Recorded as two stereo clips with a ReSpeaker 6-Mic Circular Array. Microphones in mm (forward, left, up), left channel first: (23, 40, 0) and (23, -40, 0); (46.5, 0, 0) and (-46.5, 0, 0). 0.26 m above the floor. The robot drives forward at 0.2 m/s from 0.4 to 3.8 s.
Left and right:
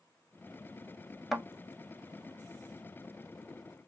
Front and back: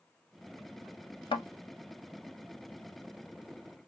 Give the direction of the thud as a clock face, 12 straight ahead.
12 o'clock.